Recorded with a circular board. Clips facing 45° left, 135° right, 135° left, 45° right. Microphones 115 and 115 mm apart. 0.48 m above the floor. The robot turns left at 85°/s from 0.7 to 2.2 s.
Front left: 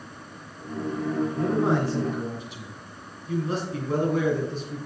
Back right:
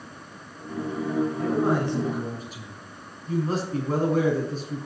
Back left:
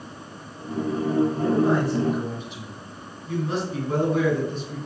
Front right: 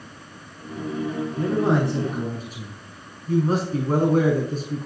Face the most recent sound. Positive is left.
turn(degrees=-90)